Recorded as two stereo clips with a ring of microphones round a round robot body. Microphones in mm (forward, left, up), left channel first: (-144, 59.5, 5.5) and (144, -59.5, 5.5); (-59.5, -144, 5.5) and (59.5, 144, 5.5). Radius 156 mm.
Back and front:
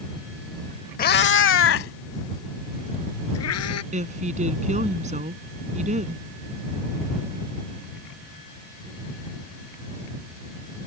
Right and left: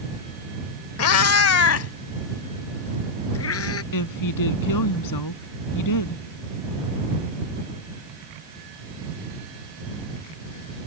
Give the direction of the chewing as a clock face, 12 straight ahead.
No chewing in this recording.